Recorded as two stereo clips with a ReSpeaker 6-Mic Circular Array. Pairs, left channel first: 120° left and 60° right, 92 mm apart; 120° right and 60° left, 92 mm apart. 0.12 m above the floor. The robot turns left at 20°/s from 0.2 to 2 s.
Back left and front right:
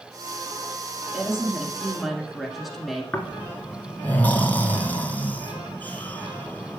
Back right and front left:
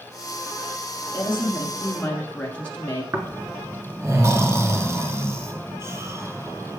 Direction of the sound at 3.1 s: 70° left.